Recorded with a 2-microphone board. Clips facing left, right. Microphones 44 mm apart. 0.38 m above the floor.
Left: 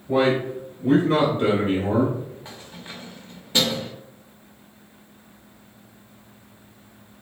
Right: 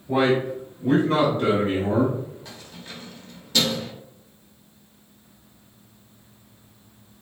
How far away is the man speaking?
About 1.5 m.